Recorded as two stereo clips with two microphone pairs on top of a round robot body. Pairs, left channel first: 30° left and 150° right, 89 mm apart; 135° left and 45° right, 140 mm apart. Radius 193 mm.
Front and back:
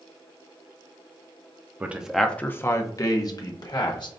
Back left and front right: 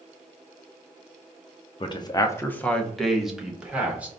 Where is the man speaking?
135° left, 0.6 m; by 4.1 s 35° left, 1.3 m.